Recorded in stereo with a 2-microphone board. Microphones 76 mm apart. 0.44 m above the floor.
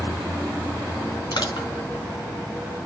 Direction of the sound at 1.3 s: 75° left (ahead or behind).